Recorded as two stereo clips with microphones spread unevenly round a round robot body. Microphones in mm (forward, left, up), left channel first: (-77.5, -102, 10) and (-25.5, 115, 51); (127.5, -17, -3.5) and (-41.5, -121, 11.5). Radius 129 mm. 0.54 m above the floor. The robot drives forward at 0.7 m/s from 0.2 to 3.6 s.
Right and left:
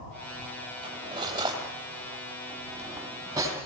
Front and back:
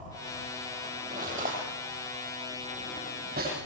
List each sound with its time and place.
0.8 s cutlery clinking: 145° left, 9 m; by 3.6 s 155° left, 10.5 m